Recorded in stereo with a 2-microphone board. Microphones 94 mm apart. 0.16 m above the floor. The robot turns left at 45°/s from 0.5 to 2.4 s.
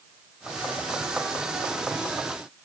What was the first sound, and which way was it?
Only background noise.